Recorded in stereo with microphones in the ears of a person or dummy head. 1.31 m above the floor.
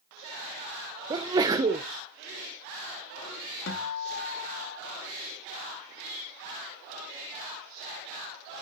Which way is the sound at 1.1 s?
20° right (ahead or behind).